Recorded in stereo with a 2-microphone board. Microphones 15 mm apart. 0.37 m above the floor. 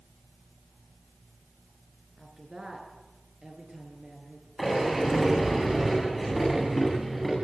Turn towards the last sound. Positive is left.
turn(degrees=-5)  # may be behind; listen again after turning